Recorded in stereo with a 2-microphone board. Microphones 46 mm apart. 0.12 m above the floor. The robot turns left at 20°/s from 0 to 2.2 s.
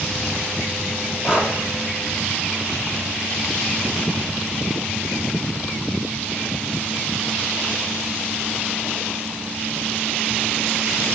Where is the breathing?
20° right (ahead or behind), 3 m; by 1.5 s 15° right (ahead or behind), 3 m.